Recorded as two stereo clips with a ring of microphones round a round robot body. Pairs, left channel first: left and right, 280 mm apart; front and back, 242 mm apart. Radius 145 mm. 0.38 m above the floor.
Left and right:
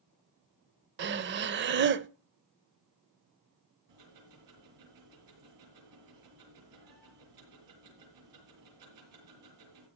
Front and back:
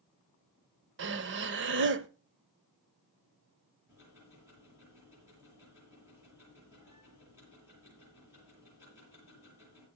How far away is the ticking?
About 7.5 m.